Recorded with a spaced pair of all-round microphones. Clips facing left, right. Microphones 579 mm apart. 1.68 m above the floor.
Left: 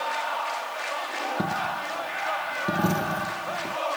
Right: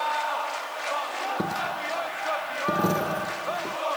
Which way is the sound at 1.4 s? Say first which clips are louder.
Right 1 dB; 10° left (ahead or behind).